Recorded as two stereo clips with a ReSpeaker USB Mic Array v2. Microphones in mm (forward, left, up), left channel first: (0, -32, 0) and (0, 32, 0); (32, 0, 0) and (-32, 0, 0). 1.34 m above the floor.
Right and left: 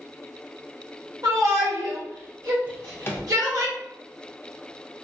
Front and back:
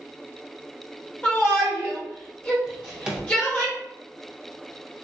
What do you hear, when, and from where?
1.2 s a shout: 70° left, 1.5 m
2.7 s a drawer: 110° right, 0.6 m